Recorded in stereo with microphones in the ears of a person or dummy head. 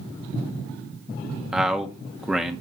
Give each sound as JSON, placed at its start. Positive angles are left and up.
{"t": 1.5, "sound": "a man speaking", "side_deg": 0, "distance_m": 1.1}